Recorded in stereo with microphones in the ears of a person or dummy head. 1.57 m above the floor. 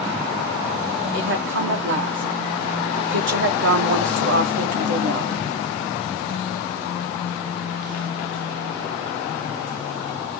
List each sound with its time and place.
1.1 s a woman speaking: 60° right (ahead or behind), 1.0 m